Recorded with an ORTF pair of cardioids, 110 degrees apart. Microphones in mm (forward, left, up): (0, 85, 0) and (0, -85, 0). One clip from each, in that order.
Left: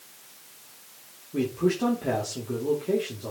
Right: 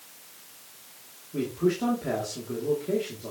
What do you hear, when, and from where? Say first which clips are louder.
1.3 s a man speaking: left 1 dB; 20° left, 3 m